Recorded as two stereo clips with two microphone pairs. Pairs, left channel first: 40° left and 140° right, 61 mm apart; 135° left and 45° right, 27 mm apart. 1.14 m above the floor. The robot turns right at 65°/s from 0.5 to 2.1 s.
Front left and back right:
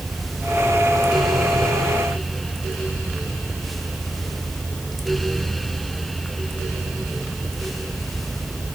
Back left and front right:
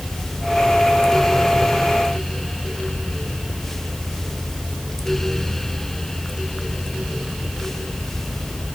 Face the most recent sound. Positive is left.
No sound to turn to.